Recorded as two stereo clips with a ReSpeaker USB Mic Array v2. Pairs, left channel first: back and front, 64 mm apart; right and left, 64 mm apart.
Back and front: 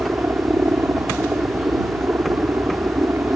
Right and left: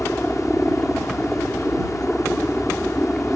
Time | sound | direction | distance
0.0 | a helicopter | 10° right | ?